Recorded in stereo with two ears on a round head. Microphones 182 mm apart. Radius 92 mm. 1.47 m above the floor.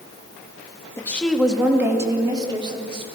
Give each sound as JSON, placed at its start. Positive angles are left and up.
{"t": 1.0, "sound": "a woman speaking", "side_deg": 10, "distance_m": 2.5}